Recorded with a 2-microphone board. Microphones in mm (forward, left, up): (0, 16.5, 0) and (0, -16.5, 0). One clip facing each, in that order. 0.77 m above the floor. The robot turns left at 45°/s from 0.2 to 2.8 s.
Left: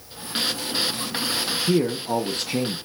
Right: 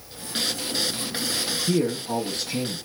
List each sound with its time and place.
1.7 s a man speaking: 160° left, 0.6 m; by 2.8 s 110° left, 0.6 m